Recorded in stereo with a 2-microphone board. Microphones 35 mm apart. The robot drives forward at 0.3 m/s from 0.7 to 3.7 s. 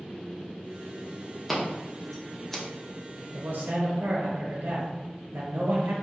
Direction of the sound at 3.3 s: 65° right (ahead or behind).